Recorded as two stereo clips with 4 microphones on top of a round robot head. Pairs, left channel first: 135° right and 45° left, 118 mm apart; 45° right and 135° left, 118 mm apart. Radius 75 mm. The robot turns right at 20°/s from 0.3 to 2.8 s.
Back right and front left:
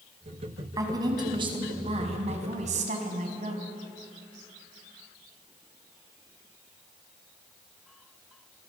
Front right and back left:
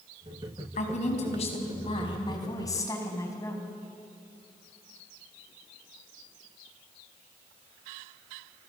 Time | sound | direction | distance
0.8 | a woman speaking | 20° right | 5 m